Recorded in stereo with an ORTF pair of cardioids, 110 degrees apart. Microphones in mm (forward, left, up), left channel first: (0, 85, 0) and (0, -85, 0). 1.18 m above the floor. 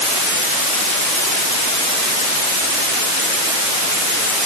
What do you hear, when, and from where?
Only background noise.